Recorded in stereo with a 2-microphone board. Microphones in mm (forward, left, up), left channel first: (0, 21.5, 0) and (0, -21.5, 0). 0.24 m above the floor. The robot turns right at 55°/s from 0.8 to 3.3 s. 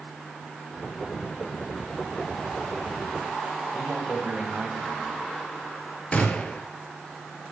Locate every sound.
3.7 s a man speaking: 30° right (ahead or behind), 1.2 m
6.1 s a gunshot: 35° left (ahead or behind), 0.8 m